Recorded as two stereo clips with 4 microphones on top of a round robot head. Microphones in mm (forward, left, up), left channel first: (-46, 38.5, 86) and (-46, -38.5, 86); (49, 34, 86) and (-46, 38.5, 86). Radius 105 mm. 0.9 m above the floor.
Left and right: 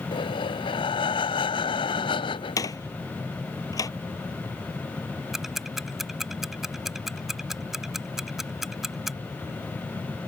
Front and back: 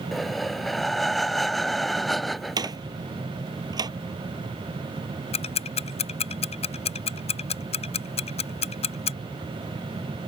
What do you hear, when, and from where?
0.1 s breathing: 85° left
2.6 s a door slam: 130° left
5.3 s ticking: 5° right